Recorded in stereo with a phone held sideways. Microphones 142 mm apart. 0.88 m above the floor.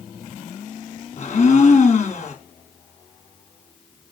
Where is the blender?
50° left (ahead or behind), 2.5 m.